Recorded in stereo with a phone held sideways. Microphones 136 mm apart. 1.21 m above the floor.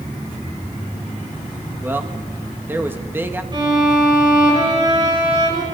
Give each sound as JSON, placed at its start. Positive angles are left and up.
{"t": 1.8, "sound": "a man speaking", "side_deg": -15, "distance_m": 1.9}
{"t": 3.5, "sound": "a violin", "side_deg": -35, "distance_m": 7.0}